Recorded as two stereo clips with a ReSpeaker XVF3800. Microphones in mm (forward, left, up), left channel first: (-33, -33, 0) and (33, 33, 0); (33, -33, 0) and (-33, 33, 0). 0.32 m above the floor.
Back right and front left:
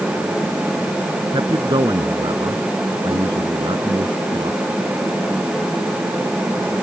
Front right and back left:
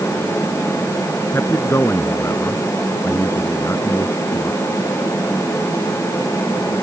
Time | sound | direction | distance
1.3 | a man speaking | 15° left | ?